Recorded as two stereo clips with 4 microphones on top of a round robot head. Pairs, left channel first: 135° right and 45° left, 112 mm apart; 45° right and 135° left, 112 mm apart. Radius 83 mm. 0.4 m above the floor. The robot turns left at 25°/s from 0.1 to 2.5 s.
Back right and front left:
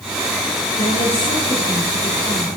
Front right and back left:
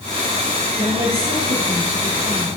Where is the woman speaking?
175° right, 8.5 m; by 2.6 s 145° left, 8.5 m.